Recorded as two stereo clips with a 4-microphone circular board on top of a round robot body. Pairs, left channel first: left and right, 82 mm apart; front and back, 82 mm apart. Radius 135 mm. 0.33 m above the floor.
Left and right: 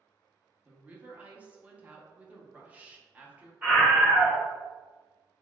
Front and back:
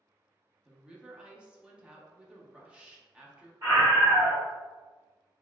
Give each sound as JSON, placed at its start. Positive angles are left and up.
{"t": 0.7, "sound": "a woman speaking", "azimuth_deg": -125, "distance_m": 0.8}
{"t": 3.6, "sound": "a scream", "azimuth_deg": -160, "distance_m": 1.7}